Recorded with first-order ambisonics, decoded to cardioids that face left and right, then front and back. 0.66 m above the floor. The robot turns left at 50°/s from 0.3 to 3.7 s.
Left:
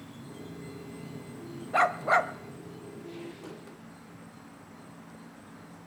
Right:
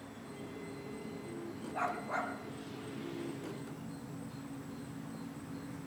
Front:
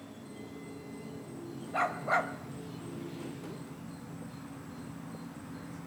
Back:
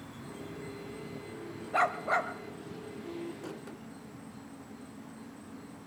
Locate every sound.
0.0 s an insect: 140° left, 5.5 m; by 5.9 s 30° right, 5.5 m
1.7 s a dog barking: 110° left, 1.1 m; by 2.3 s 80° left, 1.1 m